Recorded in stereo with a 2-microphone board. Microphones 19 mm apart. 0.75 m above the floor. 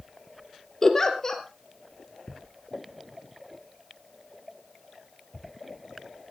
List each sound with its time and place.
0.8 s a giggle: 25° left (ahead or behind), 2.5 m